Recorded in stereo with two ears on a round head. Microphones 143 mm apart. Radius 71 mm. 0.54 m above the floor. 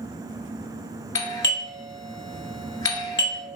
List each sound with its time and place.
1.1 s a doorbell: 20° left (ahead or behind), 1.4 m